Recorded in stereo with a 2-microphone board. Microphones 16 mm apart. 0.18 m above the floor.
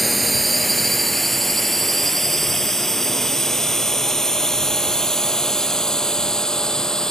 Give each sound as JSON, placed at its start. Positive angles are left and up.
{"t": 0.0, "sound": "a drone", "side_deg": 0}